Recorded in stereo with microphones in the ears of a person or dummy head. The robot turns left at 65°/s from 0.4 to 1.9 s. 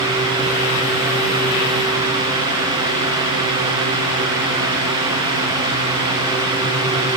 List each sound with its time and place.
Only background noise.